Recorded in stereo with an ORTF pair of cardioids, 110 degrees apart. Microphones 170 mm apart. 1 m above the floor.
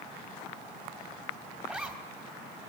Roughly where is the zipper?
Ahead.